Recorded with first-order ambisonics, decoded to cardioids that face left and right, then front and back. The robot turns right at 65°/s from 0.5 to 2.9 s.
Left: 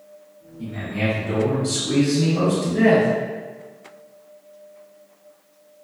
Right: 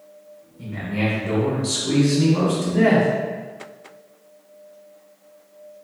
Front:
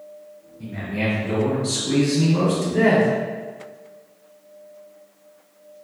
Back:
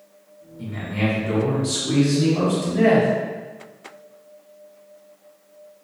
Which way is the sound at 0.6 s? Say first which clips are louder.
Even, even; 165° right.